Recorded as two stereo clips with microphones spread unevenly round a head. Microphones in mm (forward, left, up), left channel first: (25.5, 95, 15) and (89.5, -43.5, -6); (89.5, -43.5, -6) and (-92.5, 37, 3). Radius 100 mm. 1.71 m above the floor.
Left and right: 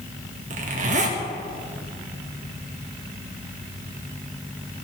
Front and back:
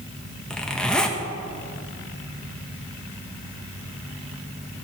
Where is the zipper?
110° right, 1.2 m.